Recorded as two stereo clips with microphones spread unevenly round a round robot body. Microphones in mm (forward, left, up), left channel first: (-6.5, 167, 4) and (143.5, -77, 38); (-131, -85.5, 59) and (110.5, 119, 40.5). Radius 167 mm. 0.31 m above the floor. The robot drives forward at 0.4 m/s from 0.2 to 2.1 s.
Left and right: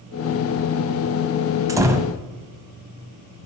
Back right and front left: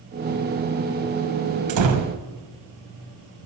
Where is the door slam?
25° left, 1.7 m.